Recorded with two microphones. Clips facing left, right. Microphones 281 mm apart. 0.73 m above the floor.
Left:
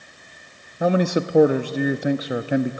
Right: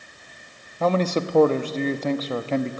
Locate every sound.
0.8 s a man speaking: 10° left (ahead or behind), 0.6 m